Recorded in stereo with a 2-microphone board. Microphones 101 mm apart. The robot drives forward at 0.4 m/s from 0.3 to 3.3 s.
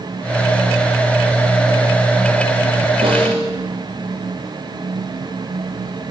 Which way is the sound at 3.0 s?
55° right (ahead or behind).